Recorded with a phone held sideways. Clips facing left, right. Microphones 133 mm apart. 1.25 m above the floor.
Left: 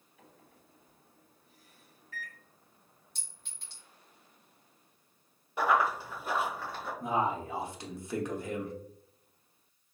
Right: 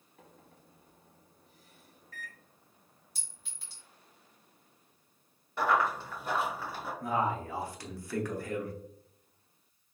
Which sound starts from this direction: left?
A man speaking, at 7.0 s.